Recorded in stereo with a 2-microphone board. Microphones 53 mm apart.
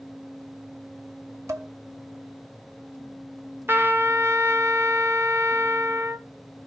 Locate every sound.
1.5 s dishes clattering: 60° right (ahead or behind), 1.2 m
3.7 s a trumpet: 45° right (ahead or behind), 1.1 m